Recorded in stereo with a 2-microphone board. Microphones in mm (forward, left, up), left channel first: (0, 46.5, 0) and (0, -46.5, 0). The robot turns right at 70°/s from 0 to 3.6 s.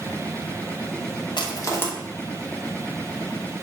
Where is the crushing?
55° left (ahead or behind), 0.5 m; by 1.9 s 20° left (ahead or behind), 0.5 m.